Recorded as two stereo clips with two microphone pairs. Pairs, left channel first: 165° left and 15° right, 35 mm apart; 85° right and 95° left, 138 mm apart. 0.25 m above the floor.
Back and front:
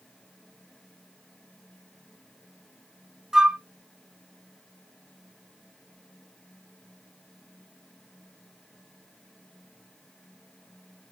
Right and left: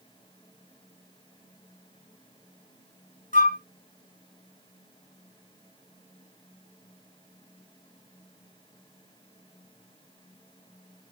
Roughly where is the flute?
Right.